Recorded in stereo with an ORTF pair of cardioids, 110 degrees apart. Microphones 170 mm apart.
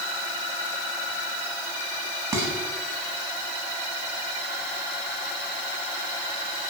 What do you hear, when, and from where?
2.3 s dishes clattering: 15° right, 8.5 m